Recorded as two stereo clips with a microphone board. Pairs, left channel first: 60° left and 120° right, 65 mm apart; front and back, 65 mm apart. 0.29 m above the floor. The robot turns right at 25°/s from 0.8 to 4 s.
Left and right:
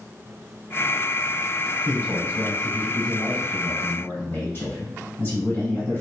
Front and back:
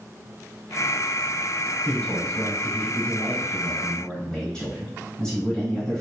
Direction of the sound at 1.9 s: 20° left.